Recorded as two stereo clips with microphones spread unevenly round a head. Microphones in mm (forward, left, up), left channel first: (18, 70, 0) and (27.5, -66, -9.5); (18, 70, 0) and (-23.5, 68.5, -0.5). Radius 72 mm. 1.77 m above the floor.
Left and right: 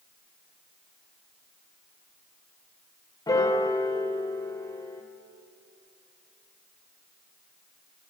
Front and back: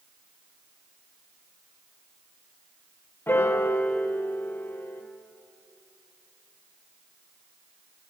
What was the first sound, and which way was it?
A piano, 30° left.